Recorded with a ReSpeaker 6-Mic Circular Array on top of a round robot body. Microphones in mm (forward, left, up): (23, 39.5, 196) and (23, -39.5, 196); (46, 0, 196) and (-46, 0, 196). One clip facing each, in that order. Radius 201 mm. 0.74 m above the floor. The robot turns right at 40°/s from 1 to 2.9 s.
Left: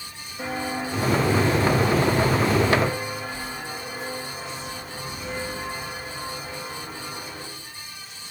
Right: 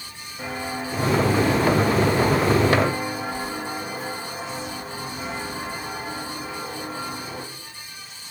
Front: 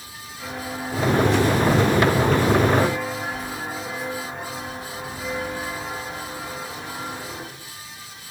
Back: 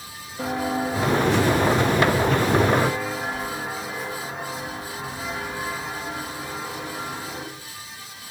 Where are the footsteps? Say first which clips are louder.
Left 1 dB, back 7 dB; 175° right, 3 m; by 7.4 s 85° right, 7.5 m.